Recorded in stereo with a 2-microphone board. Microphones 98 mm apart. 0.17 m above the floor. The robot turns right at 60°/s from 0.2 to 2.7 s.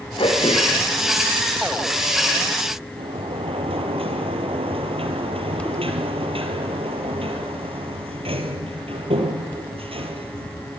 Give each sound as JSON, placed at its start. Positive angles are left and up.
{"t": 0.2, "sound": "throat clearing", "side_deg": 65, "distance_m": 7.5}
{"t": 3.0, "sound": "a sliding door", "side_deg": -75, "distance_m": 4.0}